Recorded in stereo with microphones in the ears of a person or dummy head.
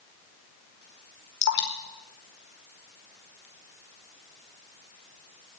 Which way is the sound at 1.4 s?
70° left (ahead or behind).